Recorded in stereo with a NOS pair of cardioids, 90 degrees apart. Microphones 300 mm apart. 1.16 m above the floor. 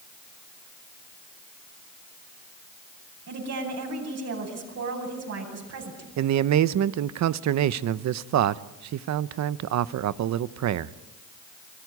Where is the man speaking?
65° right, 0.9 m.